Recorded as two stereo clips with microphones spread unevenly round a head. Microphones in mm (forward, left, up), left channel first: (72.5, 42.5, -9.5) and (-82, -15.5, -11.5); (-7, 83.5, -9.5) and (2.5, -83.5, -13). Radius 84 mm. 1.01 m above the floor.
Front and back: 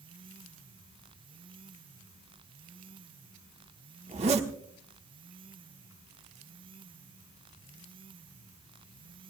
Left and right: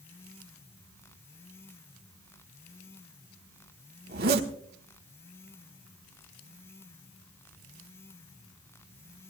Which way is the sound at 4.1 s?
110° right.